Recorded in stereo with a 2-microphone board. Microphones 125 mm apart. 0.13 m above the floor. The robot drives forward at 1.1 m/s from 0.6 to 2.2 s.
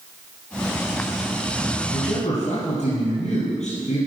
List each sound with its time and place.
1.9 s a man speaking: 60° left (ahead or behind), 4 m